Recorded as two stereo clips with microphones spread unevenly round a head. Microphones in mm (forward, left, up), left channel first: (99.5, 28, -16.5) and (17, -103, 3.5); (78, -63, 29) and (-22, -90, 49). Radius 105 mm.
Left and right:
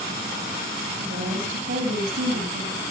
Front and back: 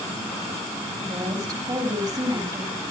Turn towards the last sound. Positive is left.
turn(degrees=-110)